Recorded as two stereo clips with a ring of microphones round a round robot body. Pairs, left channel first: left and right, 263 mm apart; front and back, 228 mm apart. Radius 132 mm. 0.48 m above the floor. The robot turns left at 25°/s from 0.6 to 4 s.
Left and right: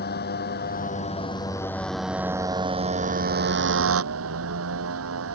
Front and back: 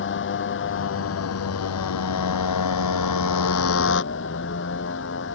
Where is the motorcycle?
35° left; by 5.3 s 50° right.